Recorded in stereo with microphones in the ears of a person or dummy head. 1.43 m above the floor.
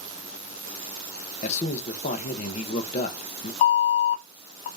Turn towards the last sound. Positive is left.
turn(degrees=35)  # may be behind; listen again after turning